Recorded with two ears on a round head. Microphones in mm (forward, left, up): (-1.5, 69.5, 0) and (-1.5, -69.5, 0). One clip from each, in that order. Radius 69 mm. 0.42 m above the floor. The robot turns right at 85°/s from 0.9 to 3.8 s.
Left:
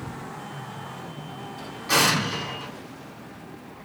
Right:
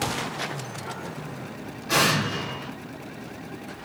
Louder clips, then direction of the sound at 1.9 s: Left 1 dB; 80° left.